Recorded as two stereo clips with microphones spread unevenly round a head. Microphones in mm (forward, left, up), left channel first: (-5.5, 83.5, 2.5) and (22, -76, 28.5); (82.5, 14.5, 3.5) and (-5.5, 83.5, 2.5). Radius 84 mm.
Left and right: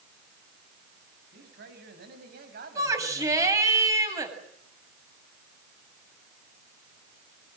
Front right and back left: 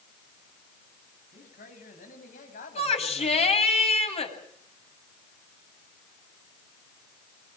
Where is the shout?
10° right, 8.5 m.